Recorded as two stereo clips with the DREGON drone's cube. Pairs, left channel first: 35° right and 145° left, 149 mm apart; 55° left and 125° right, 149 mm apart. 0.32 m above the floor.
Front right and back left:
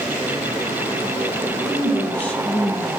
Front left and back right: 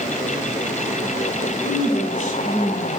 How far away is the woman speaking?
About 1.7 m.